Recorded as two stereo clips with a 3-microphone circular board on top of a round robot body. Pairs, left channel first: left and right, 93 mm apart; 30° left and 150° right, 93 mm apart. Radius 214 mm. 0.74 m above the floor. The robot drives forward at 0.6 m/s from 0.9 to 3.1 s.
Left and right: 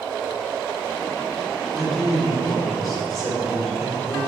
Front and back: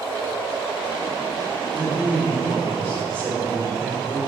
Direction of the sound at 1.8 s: Straight behind.